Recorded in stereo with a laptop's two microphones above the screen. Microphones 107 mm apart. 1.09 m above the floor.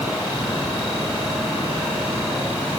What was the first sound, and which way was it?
Only background noise.